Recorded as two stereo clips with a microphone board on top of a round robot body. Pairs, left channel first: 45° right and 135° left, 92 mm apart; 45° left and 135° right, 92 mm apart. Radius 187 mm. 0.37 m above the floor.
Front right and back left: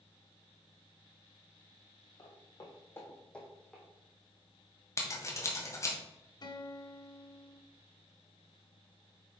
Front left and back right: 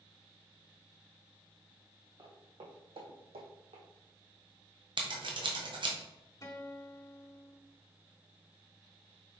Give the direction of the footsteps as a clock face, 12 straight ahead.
3 o'clock.